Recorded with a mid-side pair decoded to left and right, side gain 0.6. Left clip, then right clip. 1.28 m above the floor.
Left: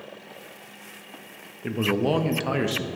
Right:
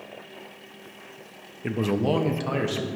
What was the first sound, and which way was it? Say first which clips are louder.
A man speaking: left 1 dB; 10° right.